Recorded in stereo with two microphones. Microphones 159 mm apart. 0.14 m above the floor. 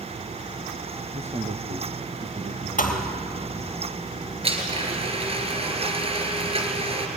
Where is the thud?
55° left (ahead or behind), 1.7 m.